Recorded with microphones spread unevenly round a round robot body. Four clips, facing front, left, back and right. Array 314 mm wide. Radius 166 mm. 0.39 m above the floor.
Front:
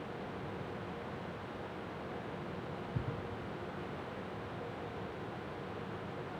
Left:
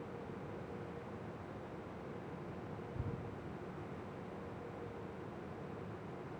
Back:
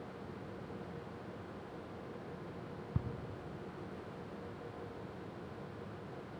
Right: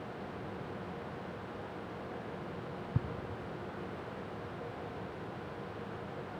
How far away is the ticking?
About 3.5 m.